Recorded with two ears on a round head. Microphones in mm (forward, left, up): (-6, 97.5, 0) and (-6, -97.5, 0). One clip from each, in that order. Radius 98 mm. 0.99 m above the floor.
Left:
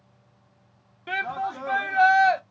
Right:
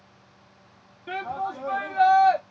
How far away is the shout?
About 1.0 m.